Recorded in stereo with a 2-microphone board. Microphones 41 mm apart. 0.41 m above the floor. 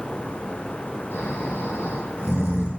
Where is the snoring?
90° left, 4 m.